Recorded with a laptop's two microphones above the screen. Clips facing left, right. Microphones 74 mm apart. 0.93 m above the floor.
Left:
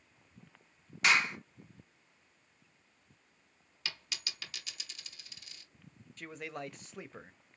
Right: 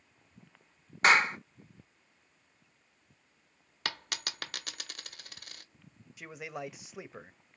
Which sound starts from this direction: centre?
A man speaking, at 6.2 s.